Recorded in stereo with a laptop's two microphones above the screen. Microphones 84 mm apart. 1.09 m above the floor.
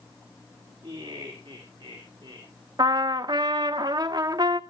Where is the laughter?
65° right (ahead or behind), 3 m; by 2.5 s 75° right (ahead or behind), 3 m.